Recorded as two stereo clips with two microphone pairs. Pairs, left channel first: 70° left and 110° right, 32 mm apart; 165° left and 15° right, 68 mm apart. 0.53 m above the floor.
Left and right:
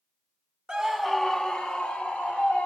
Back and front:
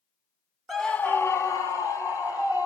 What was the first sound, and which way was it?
A scream, 110° right.